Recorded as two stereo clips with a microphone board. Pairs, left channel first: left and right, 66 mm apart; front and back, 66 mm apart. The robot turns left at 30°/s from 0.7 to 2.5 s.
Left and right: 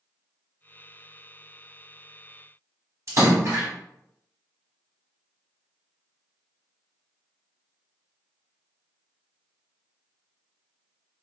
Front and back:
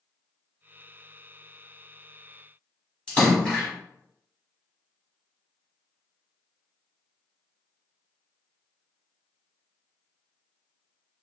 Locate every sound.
3.1 s a splash: 70° right, 1.4 m